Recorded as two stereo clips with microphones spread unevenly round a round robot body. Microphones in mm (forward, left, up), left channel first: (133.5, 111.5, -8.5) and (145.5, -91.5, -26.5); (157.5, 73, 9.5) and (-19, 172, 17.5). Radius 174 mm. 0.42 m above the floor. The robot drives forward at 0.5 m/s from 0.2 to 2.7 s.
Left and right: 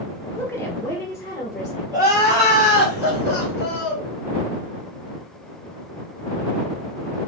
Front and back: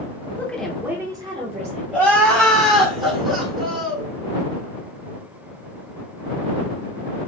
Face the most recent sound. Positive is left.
turn(degrees=-150)